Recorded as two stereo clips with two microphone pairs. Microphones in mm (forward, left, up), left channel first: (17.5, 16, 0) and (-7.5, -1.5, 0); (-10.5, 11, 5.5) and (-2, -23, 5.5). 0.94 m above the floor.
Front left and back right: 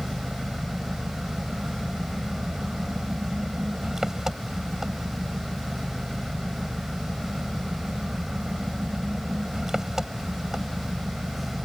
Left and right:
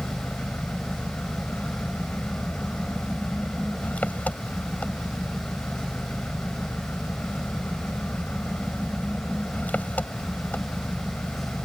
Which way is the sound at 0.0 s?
140° left.